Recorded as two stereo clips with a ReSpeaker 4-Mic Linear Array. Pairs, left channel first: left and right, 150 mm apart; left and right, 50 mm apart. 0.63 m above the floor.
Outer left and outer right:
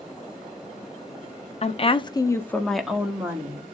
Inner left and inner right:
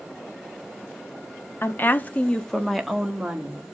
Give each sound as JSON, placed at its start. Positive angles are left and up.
{"t": 1.6, "sound": "a woman speaking", "side_deg": 45, "distance_m": 0.7}